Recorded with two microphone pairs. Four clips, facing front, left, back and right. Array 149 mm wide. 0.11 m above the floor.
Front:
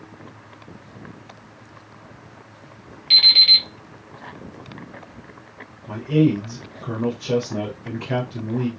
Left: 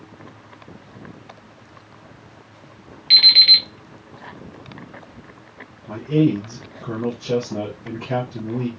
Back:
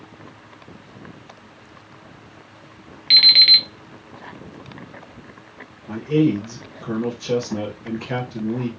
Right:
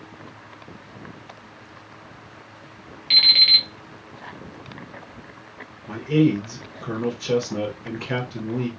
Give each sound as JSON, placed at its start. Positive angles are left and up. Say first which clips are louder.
{"t": 3.1, "sound": "an alarm clock", "louder": "left 2 dB, back 2 dB", "azimuth_deg": 155, "distance_m": 0.8}
{"t": 5.9, "sound": "a man speaking", "louder": "left 1 dB, even", "azimuth_deg": -95, "distance_m": 1.4}